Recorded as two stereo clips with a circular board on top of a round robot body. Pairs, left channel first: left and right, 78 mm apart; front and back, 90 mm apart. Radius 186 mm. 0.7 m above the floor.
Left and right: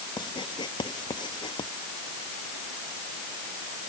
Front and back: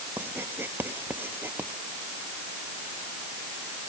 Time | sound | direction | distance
0.2 | writing | 115° left | ?